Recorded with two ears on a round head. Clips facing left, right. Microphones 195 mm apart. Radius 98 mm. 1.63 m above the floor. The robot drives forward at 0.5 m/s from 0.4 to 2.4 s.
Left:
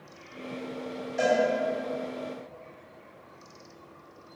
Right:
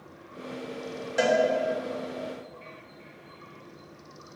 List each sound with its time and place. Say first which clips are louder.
1.2 s a cowbell: right 1 dB; 70° right (ahead or behind), 2.5 m; by 1.4 s 75° right (ahead or behind), 2.5 m